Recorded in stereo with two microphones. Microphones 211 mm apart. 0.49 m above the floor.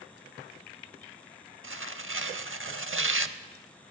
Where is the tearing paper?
65° right (ahead or behind), 0.5 m.